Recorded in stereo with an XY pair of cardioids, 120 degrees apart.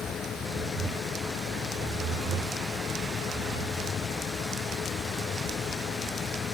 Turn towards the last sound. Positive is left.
turn(degrees=50)